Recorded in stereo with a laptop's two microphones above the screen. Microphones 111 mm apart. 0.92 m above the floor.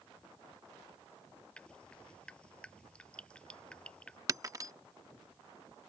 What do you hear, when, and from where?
1.6 s dripping: 10° left (ahead or behind)
4.3 s breaking glass: 30° right (ahead or behind)